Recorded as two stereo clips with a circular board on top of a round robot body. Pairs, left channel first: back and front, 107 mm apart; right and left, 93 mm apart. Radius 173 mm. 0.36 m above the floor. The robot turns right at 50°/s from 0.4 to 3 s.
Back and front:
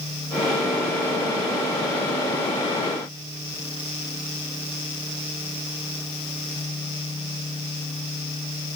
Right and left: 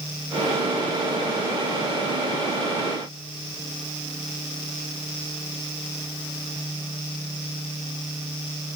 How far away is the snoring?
I don't hear snoring.